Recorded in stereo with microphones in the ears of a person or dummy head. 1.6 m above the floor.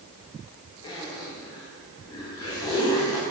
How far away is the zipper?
About 1.1 m.